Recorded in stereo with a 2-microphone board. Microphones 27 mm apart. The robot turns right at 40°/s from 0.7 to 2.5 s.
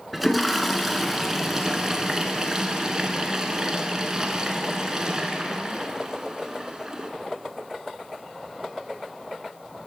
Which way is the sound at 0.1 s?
Centre (ahead or behind).